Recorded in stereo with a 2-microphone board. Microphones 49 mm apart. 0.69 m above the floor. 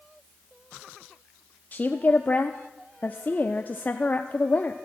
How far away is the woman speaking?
About 0.7 m.